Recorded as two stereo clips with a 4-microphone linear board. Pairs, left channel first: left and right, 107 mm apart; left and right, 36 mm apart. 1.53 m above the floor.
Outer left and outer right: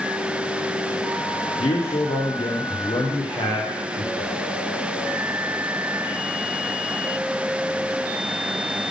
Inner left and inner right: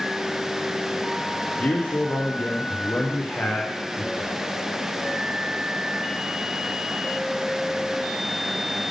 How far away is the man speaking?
About 1.0 m.